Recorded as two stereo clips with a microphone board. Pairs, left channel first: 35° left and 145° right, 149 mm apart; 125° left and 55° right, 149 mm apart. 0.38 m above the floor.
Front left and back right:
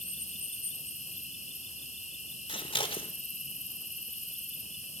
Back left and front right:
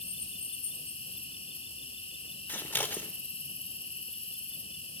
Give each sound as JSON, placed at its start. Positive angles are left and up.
{"t": 0.0, "sound": "an insect", "azimuth_deg": 75, "distance_m": 1.2}
{"t": 2.5, "sound": "scissors", "azimuth_deg": 55, "distance_m": 0.9}